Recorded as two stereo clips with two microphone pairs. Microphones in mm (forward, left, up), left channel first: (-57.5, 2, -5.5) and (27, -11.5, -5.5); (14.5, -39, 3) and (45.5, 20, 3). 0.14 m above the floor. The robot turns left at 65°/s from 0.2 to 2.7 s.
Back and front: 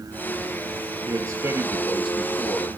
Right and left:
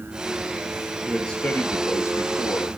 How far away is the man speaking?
About 2.5 m.